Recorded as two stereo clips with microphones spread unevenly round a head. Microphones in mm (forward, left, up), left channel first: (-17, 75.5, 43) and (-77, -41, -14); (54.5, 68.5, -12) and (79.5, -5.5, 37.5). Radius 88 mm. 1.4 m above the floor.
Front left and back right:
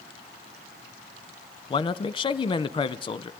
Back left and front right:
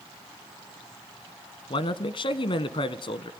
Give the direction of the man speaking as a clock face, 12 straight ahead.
8 o'clock.